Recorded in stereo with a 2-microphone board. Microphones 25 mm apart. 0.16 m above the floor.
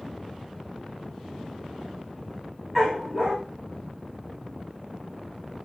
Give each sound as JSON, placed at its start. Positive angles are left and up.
{"t": 2.8, "sound": "a dog barking", "side_deg": -20, "distance_m": 6.0}